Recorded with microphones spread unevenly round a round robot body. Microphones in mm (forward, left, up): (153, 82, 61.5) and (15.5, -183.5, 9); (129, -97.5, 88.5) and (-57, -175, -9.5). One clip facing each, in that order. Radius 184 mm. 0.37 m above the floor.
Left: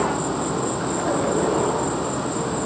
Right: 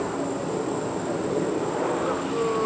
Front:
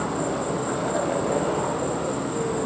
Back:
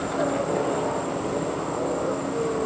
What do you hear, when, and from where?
0.0 s an insect: 65° left, 6 m